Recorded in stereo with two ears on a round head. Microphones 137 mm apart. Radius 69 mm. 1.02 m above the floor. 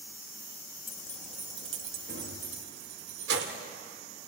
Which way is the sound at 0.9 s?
20° left (ahead or behind).